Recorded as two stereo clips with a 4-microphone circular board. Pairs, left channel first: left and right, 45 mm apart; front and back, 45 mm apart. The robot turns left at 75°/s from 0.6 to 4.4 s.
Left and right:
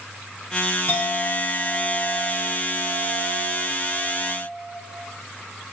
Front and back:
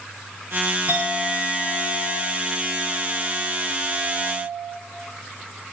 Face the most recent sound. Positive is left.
turn(degrees=-140)